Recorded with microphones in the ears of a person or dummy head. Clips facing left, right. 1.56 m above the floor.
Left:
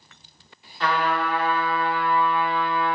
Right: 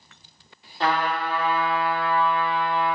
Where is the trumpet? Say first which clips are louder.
Even; 30° right (ahead or behind), 1.5 m.